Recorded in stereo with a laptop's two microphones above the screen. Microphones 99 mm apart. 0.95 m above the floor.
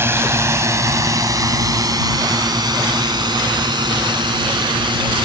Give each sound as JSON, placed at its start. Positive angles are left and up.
{"t": 0.0, "sound": "a drone", "side_deg": -25}